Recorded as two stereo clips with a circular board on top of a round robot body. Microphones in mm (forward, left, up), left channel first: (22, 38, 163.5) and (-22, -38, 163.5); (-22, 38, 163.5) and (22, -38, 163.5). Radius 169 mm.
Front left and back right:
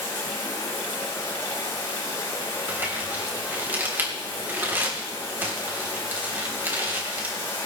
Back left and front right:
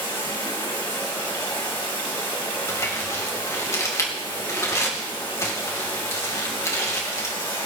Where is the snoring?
No snoring in this recording.